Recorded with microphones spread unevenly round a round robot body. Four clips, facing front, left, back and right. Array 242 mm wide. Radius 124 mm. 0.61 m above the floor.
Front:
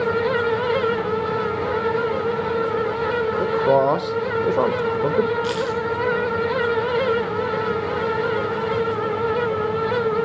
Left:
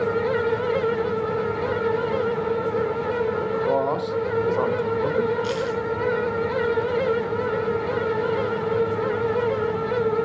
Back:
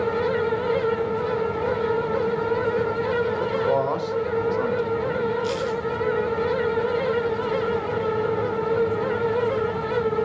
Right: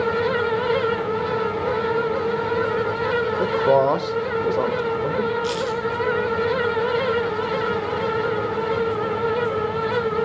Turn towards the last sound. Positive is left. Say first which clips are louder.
# right 1 dB, front 2 dB
turn(degrees=0)